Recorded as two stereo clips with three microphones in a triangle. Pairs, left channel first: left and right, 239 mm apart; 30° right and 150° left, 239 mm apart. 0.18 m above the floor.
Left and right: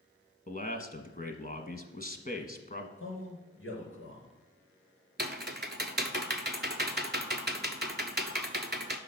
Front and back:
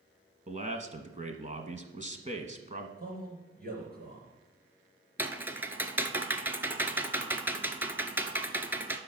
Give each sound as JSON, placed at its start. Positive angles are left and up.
{"t": 0.5, "sound": "a man speaking", "azimuth_deg": 115, "distance_m": 1.3}
{"t": 3.0, "sound": "a man speaking", "azimuth_deg": 105, "distance_m": 3.5}
{"t": 5.2, "sound": "typing on a keyboard", "azimuth_deg": -130, "distance_m": 0.9}